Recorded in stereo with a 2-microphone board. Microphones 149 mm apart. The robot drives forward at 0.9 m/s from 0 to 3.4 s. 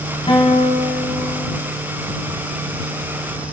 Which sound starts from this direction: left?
A guitar, at 0.3 s.